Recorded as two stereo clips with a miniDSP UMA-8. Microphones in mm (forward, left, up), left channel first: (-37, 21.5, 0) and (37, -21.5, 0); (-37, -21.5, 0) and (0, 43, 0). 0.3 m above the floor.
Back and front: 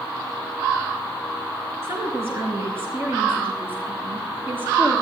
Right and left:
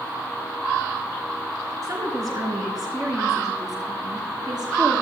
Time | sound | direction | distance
1.8 | a woman speaking | 30° left | 3 m